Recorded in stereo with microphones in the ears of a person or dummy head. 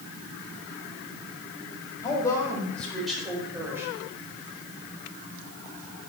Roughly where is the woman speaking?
Centre.